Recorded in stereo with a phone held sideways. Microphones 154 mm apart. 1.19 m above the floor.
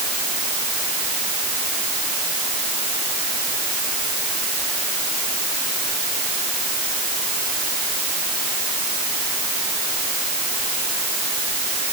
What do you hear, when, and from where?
Only background noise.